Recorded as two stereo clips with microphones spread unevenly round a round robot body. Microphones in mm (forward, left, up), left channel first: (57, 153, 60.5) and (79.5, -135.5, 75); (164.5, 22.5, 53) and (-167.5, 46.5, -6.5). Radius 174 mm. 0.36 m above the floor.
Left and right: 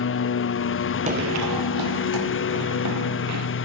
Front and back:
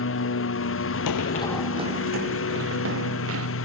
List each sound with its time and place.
0.0 s a lawn mower: 50° left; by 3.6 s 45° left
1.1 s running footsteps: 20° right; by 3.5 s 130° right